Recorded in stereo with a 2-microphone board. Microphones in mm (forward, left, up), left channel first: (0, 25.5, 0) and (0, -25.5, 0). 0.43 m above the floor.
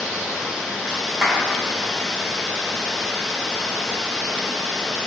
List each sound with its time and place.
0.0 s running water: 10° right (ahead or behind), 2.5 m
1.2 s a clap: 10° right (ahead or behind), 3 m